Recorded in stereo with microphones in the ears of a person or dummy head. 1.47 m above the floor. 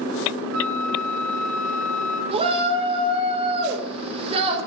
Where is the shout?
35° right (ahead or behind), 4.5 m.